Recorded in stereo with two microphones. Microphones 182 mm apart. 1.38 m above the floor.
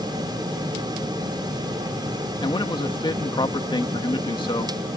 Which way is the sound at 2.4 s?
25° left (ahead or behind).